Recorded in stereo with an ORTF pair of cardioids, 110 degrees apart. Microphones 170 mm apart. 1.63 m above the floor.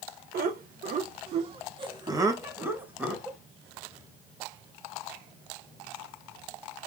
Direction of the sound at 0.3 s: 65° right.